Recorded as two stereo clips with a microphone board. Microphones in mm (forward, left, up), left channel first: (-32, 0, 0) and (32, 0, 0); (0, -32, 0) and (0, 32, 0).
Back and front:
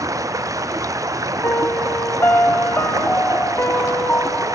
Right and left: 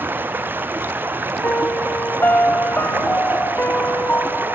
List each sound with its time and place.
0.0 s running water: 30° left
1.4 s a piano: 140° right